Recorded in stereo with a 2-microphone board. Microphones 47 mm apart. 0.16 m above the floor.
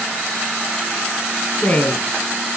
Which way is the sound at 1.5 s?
35° left (ahead or behind).